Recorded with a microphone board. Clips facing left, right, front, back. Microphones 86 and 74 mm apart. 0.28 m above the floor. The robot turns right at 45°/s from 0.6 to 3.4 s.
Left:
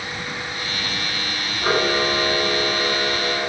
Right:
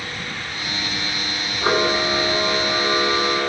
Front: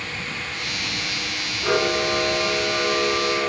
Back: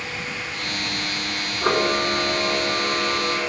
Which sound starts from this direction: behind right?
A camera shutter, at 1.6 s.